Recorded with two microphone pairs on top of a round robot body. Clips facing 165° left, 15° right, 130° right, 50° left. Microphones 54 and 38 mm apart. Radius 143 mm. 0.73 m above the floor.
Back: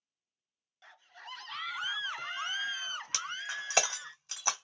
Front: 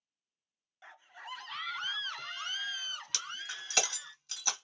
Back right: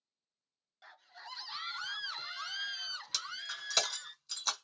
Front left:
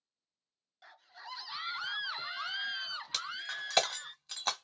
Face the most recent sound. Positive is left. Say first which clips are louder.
# back 4 dB, front left 3 dB
turn(degrees=115)